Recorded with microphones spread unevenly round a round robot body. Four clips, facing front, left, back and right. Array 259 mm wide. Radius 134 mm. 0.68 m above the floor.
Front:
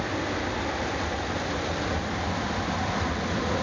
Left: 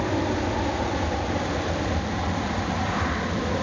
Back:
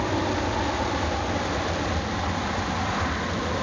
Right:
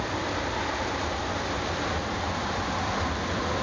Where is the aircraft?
115° left; by 3.6 s 75° left.